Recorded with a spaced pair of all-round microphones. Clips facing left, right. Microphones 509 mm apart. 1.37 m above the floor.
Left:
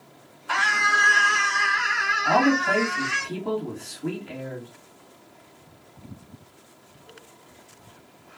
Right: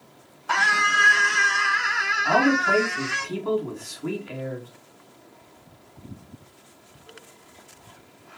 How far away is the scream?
About 1.2 m.